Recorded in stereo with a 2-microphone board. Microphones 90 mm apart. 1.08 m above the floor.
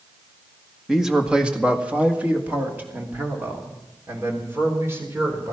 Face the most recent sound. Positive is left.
turn(degrees=-30)  # may be behind; listen again after turning